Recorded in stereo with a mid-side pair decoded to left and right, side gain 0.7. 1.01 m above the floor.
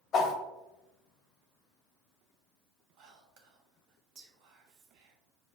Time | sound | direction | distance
0.1 | a whoosh | 45° left | 0.6 m
3.0 | whispering | 65° right | 0.8 m